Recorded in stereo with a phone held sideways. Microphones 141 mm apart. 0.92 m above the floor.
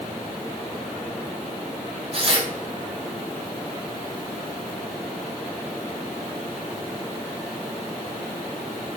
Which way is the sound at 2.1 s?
45° right (ahead or behind).